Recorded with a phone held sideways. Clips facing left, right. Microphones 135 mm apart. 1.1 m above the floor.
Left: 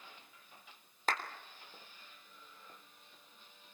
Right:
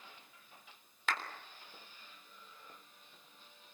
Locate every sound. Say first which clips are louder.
1.1 s a clap: left 2 dB; 45° left (ahead or behind), 3.5 m